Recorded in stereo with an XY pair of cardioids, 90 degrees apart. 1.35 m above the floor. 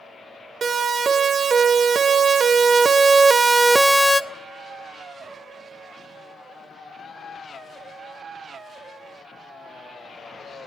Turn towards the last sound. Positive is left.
turn(degrees=40)